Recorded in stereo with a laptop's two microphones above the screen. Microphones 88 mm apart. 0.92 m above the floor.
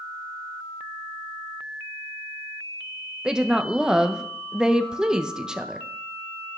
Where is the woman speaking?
5° right (ahead or behind), 0.7 m.